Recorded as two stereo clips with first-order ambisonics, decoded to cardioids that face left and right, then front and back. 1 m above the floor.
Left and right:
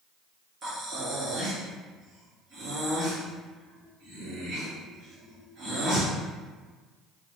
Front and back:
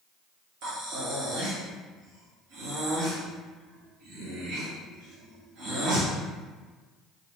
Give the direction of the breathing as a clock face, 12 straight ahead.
5 o'clock.